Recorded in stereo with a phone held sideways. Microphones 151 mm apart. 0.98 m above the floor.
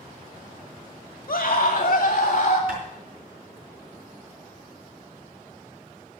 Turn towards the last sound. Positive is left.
turn(degrees=-75)  # may be behind; listen again after turning